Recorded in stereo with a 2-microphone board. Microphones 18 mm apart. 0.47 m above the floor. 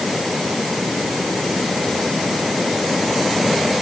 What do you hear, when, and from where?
Only background noise.